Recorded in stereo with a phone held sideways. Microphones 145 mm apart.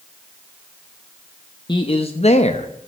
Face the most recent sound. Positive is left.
turn(degrees=45)  # may be behind; listen again after turning